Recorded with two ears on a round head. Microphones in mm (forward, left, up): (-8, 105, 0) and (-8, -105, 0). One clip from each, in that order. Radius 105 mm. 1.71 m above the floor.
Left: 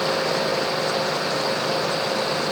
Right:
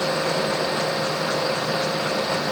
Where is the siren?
I don't hear a siren.